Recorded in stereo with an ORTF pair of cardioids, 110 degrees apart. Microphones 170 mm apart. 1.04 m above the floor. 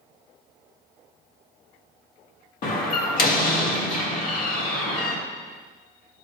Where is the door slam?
55° left, 1.8 m.